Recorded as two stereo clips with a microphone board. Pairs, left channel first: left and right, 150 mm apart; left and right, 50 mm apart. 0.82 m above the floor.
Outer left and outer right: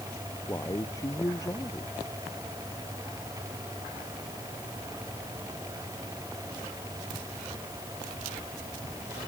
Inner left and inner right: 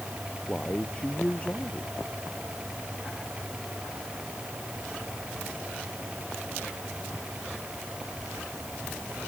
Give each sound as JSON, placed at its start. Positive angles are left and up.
{"t": 0.5, "sound": "a man speaking", "side_deg": 20}